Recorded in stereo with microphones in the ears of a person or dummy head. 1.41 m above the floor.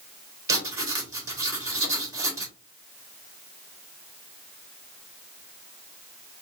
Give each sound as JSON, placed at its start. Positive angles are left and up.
{"t": 0.5, "sound": "writing", "side_deg": -20, "distance_m": 2.0}